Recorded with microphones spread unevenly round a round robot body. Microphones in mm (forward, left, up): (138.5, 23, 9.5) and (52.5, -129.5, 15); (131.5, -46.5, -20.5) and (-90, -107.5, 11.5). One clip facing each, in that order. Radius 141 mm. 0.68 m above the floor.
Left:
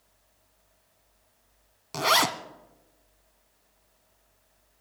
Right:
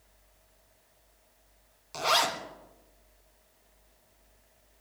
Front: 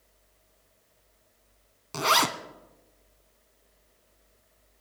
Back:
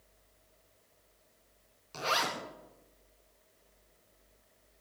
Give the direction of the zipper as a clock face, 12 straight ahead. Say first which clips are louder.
Left 3 dB, front 7 dB; 10 o'clock.